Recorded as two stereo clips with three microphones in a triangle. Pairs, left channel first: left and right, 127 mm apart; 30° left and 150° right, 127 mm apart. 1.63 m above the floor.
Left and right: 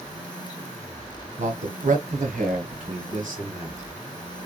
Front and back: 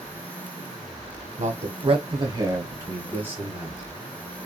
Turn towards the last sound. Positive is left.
turn(degrees=-70)